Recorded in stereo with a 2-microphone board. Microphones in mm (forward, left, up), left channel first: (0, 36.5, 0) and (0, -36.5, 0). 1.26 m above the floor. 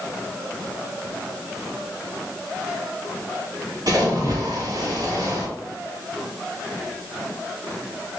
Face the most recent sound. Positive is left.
turn(degrees=-55)  # may be behind; listen again after turning